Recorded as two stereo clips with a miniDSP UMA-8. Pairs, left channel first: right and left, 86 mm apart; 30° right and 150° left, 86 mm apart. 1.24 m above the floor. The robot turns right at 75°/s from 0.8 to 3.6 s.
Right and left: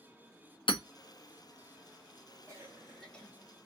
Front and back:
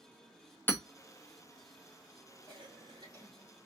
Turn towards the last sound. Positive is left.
turn(degrees=-135)